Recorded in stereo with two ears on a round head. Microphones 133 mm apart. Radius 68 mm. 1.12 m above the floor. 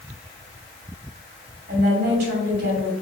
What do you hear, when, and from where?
1.7 s a woman speaking: 80° right, 2.5 m